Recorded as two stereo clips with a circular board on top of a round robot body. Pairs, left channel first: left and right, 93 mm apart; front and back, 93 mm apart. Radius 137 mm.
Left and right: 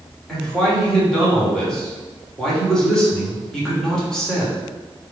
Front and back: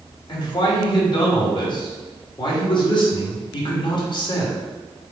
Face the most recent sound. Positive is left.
turn(degrees=5)